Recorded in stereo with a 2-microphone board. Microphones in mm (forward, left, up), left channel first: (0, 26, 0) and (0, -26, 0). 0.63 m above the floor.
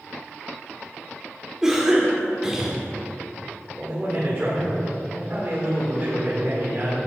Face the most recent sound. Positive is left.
turn(degrees=-40)  # may be behind; listen again after turning